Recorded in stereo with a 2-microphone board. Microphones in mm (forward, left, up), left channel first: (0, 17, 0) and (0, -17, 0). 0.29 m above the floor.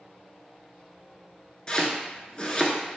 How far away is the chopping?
About 0.5 m.